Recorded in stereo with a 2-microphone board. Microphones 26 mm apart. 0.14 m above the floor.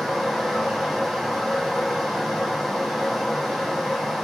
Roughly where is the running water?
Centre.